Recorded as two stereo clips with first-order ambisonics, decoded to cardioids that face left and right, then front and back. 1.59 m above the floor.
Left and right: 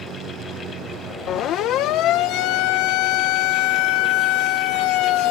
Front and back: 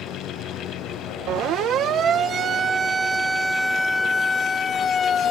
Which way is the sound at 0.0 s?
45° right.